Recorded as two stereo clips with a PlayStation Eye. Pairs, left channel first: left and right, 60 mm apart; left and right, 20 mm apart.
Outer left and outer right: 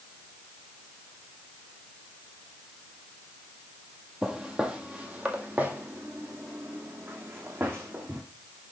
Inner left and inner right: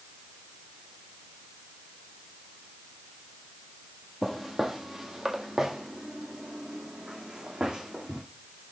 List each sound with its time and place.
4.2 s footsteps: 10° right (ahead or behind), 1.5 m; by 8.2 s 40° right (ahead or behind), 3.5 m